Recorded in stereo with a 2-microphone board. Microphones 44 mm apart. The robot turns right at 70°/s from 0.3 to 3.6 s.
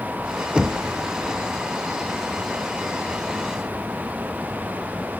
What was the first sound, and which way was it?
Knocking, 20° right (ahead or behind).